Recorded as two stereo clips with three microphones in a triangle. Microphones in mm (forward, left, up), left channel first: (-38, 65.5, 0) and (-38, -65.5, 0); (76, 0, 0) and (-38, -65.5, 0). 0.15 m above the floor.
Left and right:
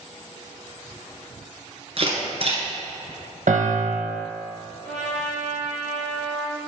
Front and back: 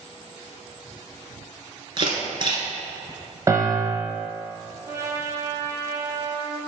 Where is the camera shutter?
110° right, 2.0 m.